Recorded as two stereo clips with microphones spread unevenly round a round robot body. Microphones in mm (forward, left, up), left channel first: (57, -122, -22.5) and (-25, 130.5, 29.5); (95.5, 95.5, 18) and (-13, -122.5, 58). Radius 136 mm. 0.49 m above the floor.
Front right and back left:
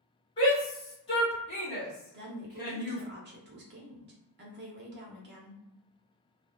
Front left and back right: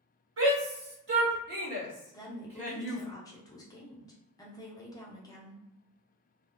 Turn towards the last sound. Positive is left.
turn(degrees=90)